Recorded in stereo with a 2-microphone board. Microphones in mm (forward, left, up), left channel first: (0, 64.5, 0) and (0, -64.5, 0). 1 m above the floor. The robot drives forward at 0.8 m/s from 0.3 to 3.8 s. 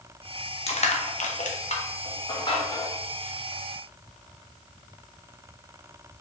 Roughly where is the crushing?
Left.